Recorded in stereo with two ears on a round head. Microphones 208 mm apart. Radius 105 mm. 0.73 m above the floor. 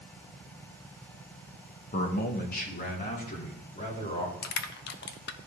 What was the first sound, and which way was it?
A man speaking, 35° left (ahead or behind).